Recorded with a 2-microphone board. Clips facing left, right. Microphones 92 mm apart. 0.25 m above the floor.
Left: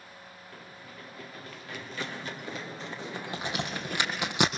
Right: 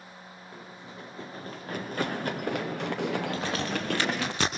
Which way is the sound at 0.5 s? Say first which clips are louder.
Right 4 dB; 15° right (ahead or behind).